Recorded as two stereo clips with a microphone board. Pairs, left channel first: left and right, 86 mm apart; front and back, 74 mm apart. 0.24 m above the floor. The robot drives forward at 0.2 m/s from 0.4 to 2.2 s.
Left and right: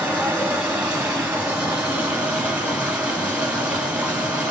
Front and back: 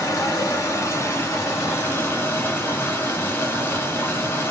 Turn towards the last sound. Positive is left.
turn(degrees=-35)